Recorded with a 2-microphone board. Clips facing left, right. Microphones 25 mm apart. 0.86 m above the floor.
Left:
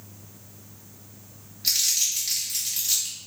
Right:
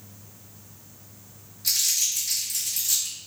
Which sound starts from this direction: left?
Crumpling, at 1.6 s.